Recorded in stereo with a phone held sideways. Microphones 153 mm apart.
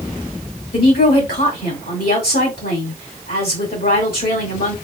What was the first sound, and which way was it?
A woman speaking, 80° left.